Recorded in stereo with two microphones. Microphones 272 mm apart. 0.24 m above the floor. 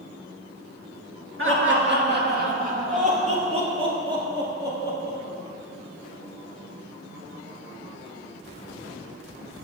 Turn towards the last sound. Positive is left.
turn(degrees=-10)  # may be behind; listen again after turning